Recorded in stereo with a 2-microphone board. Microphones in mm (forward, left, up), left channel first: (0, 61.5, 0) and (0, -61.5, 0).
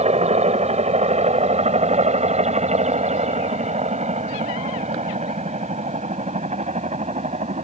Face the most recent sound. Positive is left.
turn(degrees=-65)  # may be behind; listen again after turning